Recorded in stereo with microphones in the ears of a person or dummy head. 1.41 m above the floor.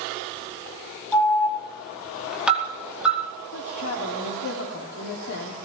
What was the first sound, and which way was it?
An alarm, 10° right (ahead or behind).